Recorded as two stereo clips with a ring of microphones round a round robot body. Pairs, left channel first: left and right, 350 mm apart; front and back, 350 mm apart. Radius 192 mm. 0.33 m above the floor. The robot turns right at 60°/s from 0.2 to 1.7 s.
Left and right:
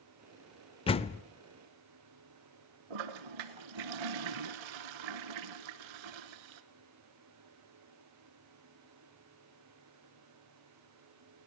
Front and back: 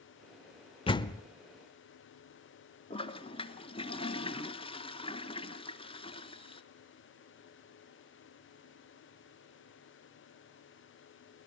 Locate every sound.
0.9 s a door slam: 45° left, 0.5 m; by 1.2 s 65° left, 0.5 m
2.9 s a toilet flushing: 75° right, 1.1 m